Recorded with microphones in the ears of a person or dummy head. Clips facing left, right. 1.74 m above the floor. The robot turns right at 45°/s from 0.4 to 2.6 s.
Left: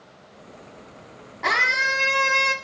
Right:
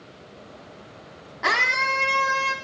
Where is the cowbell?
No cowbell in this recording.